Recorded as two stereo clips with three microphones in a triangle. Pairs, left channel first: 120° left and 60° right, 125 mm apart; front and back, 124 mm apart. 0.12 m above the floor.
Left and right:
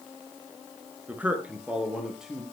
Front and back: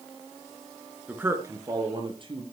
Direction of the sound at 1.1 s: 120° right.